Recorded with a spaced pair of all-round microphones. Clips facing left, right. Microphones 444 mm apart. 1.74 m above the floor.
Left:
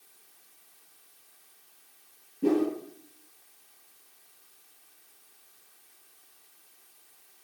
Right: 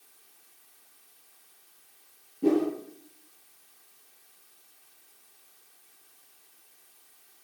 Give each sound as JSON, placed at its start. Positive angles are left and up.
{"t": 2.4, "sound": "a whoosh", "side_deg": 5, "distance_m": 7.5}